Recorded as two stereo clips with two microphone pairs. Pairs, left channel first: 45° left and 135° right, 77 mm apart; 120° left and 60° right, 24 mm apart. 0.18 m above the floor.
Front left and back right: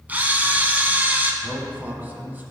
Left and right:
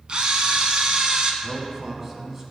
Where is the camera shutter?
75° right, 0.6 m.